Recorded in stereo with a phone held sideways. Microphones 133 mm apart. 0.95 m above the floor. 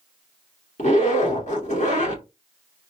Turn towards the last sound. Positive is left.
turn(degrees=65)  # may be behind; listen again after turning